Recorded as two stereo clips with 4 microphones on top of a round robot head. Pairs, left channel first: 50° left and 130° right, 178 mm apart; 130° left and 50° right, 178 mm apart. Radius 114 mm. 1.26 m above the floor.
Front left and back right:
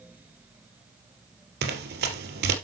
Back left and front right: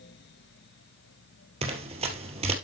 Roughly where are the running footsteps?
Right.